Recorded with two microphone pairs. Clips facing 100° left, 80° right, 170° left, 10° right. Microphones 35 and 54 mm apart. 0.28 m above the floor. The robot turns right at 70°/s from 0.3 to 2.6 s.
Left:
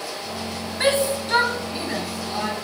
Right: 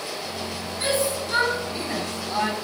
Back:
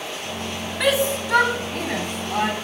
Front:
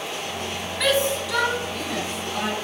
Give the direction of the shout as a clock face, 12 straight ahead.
9 o'clock.